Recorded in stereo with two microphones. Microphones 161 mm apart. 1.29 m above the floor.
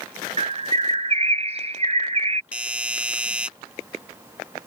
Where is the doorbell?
10° right (ahead or behind).